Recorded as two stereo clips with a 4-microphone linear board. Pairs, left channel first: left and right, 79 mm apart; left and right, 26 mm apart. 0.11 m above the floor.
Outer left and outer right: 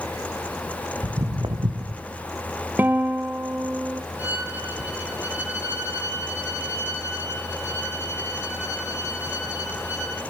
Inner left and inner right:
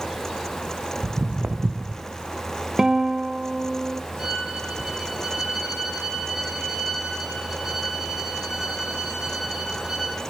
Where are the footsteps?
85° right, 1.3 m.